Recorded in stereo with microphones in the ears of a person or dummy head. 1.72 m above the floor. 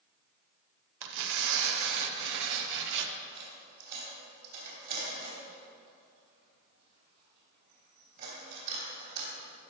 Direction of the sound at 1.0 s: 70° right (ahead or behind).